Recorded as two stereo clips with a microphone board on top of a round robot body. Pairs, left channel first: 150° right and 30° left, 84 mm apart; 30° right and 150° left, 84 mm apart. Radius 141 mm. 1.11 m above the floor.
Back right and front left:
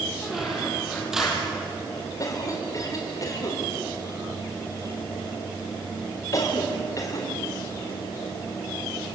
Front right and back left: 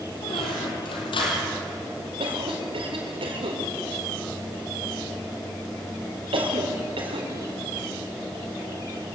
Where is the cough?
160° left, 5 m.